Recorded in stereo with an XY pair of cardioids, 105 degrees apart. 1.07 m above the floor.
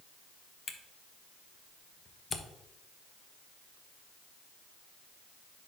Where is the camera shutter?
35° left, 0.8 m.